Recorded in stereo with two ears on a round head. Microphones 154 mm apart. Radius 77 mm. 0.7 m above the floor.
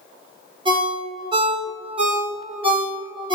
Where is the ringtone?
30° right (ahead or behind), 1.3 m.